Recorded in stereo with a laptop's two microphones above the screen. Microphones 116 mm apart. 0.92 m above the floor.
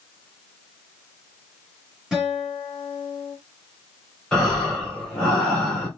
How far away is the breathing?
About 3 m.